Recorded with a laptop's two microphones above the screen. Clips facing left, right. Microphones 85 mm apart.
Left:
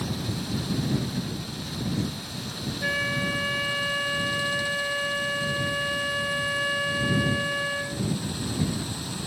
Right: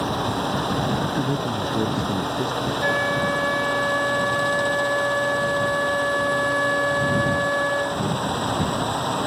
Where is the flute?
30° right (ahead or behind).